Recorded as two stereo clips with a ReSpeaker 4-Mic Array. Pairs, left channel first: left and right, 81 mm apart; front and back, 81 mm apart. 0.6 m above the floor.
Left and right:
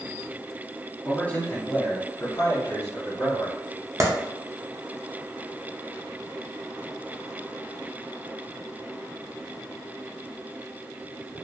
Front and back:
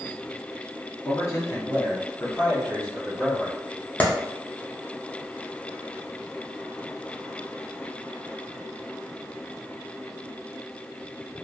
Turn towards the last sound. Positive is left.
turn(degrees=-65)